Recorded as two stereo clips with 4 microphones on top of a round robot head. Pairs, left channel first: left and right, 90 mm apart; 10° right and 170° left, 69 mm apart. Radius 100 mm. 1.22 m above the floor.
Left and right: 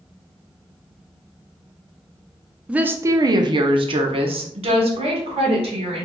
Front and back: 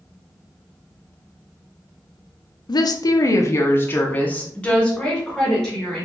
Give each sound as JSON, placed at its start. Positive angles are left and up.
{"t": 2.7, "sound": "a woman speaking", "azimuth_deg": -10, "distance_m": 0.6}